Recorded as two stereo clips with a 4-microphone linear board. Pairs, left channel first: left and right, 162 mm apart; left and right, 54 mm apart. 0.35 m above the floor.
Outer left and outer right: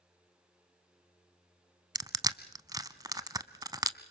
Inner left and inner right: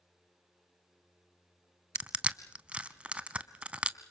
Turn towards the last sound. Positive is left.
turn(degrees=-20)  # may be behind; listen again after turning